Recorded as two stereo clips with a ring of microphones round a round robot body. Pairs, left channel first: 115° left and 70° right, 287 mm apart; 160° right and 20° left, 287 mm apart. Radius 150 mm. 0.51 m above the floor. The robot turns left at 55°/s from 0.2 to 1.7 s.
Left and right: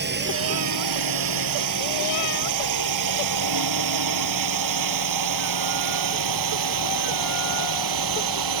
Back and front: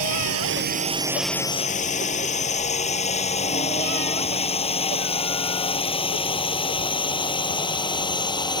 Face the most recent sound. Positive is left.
turn(degrees=-80)